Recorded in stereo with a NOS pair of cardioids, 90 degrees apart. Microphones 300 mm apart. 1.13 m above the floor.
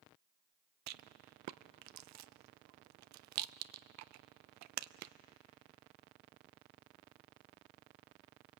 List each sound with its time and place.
0.9 s a rattle: 70° right, 0.6 m